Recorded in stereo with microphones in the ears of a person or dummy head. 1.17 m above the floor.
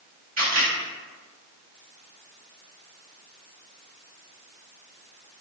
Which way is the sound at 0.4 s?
40° right (ahead or behind).